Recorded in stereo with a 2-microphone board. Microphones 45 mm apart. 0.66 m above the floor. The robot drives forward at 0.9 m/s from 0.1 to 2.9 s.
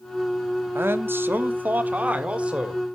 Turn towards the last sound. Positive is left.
turn(degrees=-20)  # may be behind; listen again after turning